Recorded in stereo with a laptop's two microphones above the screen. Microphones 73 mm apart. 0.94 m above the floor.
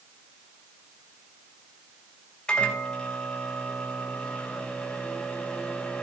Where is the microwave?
15° left (ahead or behind), 3 m.